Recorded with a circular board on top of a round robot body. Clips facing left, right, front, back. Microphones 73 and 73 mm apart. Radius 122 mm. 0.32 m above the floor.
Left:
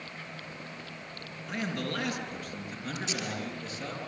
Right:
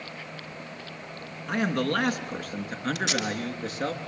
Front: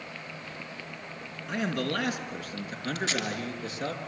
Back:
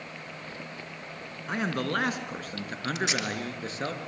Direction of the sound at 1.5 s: 130° right.